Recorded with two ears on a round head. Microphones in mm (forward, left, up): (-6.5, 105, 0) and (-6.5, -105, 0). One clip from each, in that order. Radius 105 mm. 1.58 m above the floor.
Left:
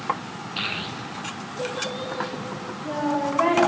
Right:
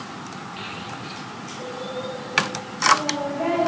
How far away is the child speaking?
About 0.9 m.